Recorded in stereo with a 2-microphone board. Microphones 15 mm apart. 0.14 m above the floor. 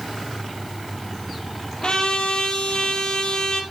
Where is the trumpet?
65° left (ahead or behind), 3.5 m.